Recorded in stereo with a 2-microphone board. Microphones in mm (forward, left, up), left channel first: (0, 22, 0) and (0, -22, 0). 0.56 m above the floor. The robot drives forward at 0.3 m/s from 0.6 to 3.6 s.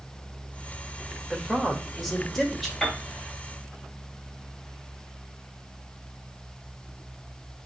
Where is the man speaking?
Centre (ahead or behind), 2 m.